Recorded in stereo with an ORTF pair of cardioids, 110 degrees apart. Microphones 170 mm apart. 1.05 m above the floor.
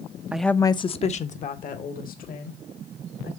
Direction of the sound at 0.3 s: 10° right.